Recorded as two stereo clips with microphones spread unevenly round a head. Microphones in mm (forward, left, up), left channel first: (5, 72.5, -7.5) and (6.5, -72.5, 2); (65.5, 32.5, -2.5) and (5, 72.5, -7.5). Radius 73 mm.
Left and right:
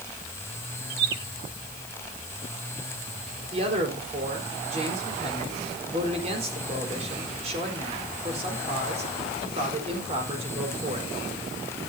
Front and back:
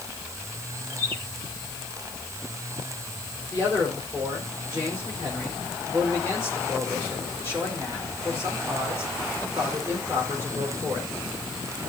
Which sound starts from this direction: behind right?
A man speaking, at 3.5 s.